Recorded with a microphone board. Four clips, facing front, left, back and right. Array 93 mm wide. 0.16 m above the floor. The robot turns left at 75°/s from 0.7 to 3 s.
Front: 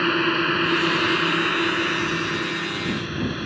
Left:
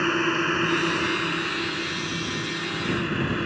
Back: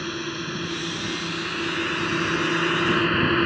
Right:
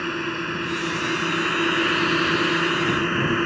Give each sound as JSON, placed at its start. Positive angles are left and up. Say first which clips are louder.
{"t": 0.0, "sound": "a drone", "louder": "left 4 dB, front 9 dB", "azimuth_deg": 20}